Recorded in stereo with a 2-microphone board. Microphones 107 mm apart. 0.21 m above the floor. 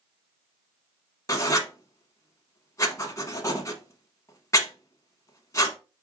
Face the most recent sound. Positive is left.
turn(degrees=30)  # may be behind; listen again after turning